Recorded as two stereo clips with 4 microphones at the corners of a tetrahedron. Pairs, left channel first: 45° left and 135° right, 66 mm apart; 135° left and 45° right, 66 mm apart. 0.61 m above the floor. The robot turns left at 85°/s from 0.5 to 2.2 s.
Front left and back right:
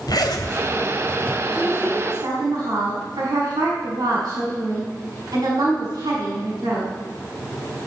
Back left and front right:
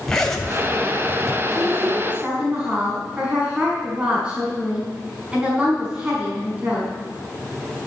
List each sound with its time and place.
0.1 s a zipper: 55° left, 2 m; by 1.4 s 25° right, 2 m
1.5 s a woman speaking: 60° right, 5 m; by 6.9 s 120° right, 5 m